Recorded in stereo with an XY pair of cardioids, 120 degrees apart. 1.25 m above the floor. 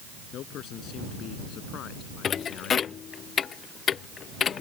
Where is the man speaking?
65° left; by 3.0 s 70° left.